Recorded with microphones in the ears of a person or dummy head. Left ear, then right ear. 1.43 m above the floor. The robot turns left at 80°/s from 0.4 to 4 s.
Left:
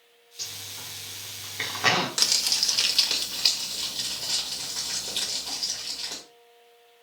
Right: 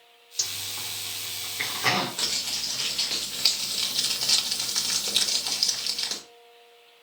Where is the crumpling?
100° left, 1.3 m; by 6.2 s 45° right, 1.3 m.